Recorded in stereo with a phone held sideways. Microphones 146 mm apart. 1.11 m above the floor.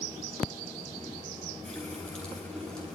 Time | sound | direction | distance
1.6 | a running tap | 5° left (ahead or behind) | 10 m